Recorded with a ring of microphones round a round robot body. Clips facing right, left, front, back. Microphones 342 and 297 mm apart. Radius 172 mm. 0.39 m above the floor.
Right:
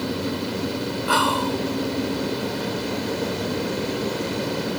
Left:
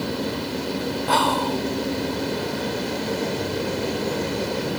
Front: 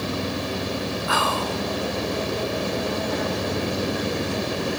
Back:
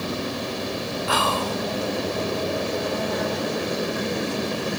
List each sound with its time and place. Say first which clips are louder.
1.1 s whispering: even, back 1 dB; 155° right, 1.3 m